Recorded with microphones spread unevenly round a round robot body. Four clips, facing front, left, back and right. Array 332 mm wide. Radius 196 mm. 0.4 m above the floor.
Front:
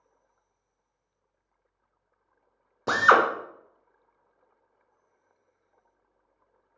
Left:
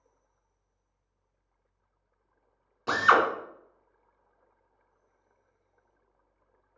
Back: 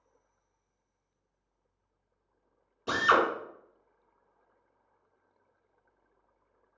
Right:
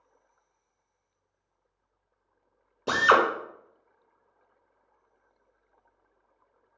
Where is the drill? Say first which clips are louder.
Right 1 dB, front 5 dB; 35° right, 0.8 m.